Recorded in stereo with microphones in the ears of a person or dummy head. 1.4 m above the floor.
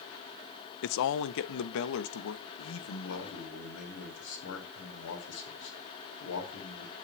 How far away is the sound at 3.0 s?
About 4.5 m.